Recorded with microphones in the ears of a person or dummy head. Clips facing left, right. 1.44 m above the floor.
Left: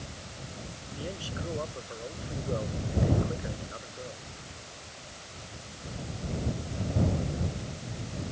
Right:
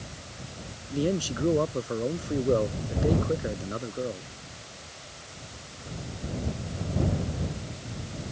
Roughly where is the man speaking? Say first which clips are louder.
Right 12 dB; right.